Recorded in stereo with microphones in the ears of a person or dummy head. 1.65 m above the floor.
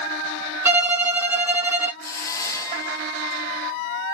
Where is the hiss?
20° left (ahead or behind), 0.6 m.